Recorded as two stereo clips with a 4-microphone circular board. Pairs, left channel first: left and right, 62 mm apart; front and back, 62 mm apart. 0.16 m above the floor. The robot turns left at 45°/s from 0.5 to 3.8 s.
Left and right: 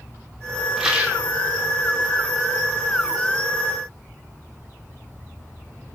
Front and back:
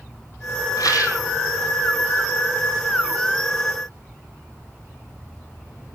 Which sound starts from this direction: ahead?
A rattle, at 0.8 s.